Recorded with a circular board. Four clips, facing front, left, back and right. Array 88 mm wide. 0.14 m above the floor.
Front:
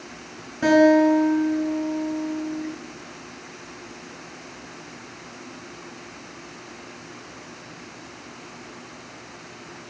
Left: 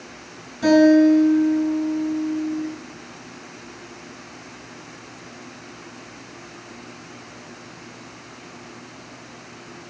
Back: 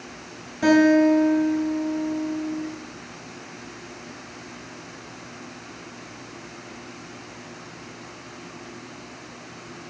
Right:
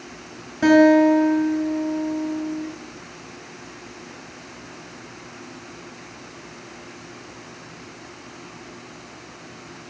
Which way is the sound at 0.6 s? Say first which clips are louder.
Even, front 1 dB; 70° right.